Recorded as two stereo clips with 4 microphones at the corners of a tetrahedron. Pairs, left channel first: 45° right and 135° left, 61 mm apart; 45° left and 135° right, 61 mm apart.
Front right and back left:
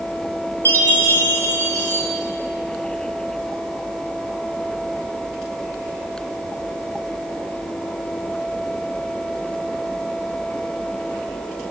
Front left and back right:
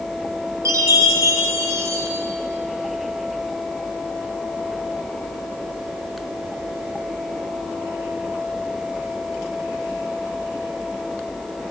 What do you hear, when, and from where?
0.7 s a chime: 105° right, 4.5 m